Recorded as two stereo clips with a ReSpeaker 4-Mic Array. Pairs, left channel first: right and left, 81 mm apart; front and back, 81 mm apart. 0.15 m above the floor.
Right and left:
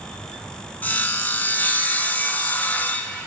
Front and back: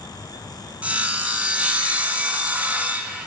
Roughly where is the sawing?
Behind right.